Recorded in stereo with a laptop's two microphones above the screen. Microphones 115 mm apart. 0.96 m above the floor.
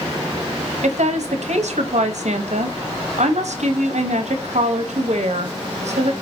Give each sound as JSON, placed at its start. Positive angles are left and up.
{"t": 0.8, "sound": "a woman speaking", "side_deg": -75, "distance_m": 0.8}